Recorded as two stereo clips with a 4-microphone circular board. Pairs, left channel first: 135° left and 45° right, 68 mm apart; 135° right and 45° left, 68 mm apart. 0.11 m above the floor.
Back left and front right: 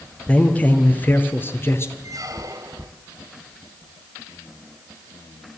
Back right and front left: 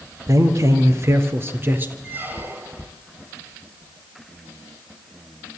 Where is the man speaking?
65° left, 2.5 m; by 1.9 s 95° left, 2 m.